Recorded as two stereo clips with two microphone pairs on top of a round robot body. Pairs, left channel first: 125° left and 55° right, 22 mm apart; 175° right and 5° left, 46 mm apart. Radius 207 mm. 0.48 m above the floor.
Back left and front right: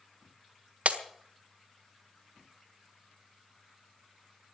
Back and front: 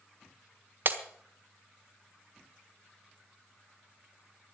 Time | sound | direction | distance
0.8 | breaking glass | 40° right | 1.4 m